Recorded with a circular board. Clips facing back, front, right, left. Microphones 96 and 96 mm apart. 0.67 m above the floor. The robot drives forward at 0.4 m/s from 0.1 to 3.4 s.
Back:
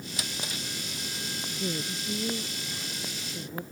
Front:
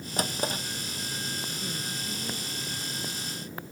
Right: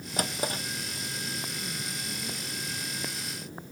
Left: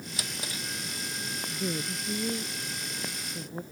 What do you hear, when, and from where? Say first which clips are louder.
0.2 s a drawer: front 10 dB, right 10 dB; 45° right
1.5 s a woman speaking: back 4 dB, left 5 dB; 125° left; by 3.6 s 130° left